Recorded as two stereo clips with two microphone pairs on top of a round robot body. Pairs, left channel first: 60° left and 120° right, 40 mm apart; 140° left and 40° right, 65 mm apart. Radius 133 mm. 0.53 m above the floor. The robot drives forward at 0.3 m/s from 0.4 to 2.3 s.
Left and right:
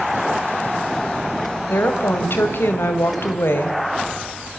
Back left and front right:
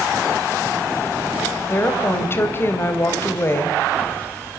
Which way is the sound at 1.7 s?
80° left.